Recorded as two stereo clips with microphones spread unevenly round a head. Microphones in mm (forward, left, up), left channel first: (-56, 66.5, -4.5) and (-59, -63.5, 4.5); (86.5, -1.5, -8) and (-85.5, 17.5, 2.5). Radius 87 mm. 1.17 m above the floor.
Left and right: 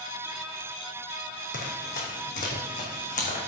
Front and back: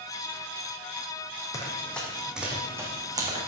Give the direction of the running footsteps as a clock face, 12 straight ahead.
10 o'clock.